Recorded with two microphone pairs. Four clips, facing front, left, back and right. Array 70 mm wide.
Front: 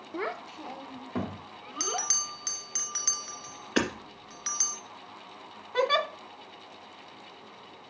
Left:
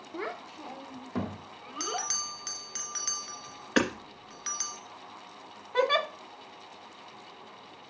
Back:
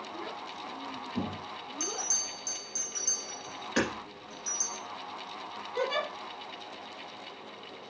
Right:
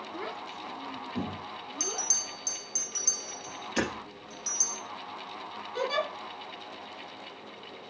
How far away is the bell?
About 1.8 m.